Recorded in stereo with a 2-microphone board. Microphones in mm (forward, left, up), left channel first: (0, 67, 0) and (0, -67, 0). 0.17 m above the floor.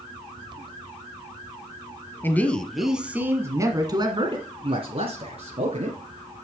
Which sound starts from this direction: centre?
A man speaking, at 2.2 s.